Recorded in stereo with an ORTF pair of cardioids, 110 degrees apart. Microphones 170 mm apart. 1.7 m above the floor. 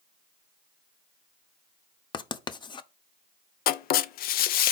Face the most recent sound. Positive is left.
turn(degrees=65)